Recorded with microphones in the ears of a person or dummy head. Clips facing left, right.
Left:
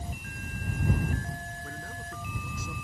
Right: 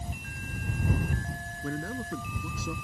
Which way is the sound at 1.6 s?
65° right (ahead or behind).